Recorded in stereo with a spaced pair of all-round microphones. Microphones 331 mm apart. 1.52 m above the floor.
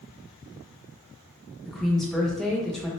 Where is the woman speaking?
Centre (ahead or behind), 0.8 m.